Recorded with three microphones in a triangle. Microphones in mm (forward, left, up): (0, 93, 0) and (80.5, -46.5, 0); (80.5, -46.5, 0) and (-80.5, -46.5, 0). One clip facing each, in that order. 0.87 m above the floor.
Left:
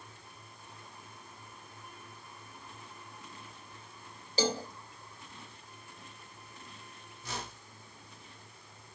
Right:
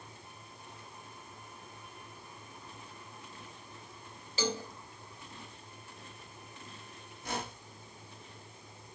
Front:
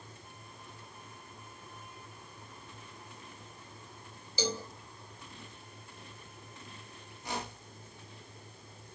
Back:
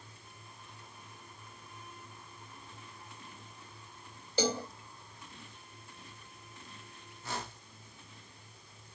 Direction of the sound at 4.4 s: 165° left.